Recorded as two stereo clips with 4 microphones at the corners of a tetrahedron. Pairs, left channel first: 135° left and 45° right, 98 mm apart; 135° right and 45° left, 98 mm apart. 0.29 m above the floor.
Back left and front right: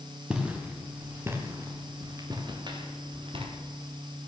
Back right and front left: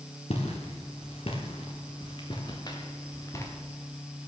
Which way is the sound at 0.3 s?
125° right.